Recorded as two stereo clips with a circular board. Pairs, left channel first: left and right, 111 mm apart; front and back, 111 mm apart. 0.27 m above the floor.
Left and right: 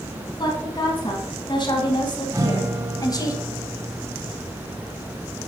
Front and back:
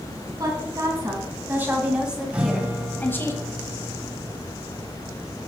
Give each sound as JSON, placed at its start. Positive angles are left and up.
{"t": 0.4, "sound": "a woman speaking", "azimuth_deg": 130, "distance_m": 2.0}
{"t": 2.3, "sound": "a guitar", "azimuth_deg": -110, "distance_m": 1.0}